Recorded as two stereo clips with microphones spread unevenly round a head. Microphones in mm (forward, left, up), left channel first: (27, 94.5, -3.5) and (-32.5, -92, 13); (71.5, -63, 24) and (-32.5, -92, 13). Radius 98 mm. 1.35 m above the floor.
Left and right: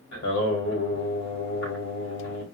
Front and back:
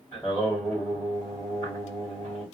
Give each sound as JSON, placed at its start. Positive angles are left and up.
{"t": 0.1, "sound": "singing", "azimuth_deg": 90, "distance_m": 1.4}